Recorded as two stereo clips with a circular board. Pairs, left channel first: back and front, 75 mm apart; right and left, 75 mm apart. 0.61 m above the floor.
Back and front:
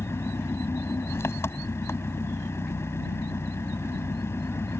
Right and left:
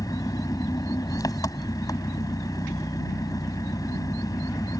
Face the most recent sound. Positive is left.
turn(degrees=-125)